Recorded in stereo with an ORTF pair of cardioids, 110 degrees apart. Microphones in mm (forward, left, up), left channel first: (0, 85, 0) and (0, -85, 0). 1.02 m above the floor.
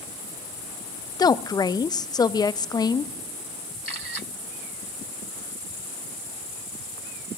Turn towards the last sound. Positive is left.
turn(degrees=20)